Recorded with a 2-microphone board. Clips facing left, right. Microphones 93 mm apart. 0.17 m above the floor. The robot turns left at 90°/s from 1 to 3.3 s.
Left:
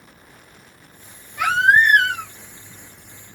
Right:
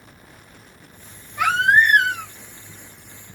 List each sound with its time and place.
1.4 s a baby crying: 175° right, 1.2 m; by 2.3 s 100° left, 1.2 m